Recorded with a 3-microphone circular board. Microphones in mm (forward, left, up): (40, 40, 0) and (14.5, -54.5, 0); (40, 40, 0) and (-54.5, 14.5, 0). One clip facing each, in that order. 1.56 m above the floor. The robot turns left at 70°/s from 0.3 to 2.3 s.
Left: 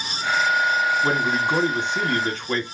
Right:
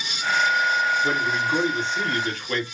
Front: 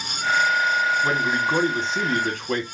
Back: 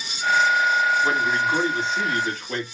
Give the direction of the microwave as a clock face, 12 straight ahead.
No microwave in this recording.